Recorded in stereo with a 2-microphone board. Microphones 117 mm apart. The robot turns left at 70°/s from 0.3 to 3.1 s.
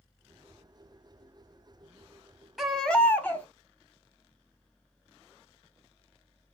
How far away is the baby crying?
About 1.0 m.